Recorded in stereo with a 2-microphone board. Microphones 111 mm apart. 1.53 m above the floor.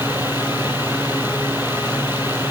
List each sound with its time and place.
Only background noise.